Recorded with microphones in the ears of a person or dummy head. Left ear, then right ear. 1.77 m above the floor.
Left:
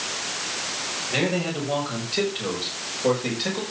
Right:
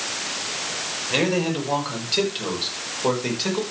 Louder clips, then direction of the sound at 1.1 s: Right 4 dB; 40° right (ahead or behind).